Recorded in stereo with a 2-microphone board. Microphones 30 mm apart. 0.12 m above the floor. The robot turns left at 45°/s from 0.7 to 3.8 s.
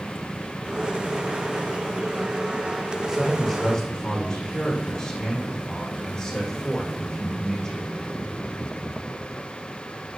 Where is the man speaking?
Straight behind, 5.5 m; by 7.8 s 150° left, 5.5 m.